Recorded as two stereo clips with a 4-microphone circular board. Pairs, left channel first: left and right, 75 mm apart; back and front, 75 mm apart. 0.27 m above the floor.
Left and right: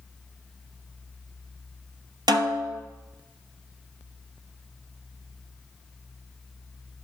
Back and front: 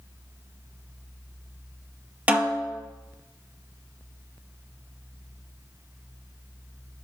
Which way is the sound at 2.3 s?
75° right.